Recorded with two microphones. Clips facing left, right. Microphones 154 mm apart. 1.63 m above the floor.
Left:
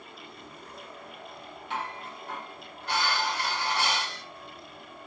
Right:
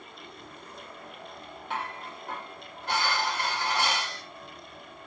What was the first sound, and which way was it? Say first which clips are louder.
Dishes clattering: even; 55° right (ahead or behind).